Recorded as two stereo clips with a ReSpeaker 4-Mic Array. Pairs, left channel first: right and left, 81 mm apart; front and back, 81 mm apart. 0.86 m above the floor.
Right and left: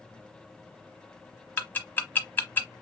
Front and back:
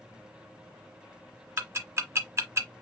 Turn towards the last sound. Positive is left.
turn(degrees=-145)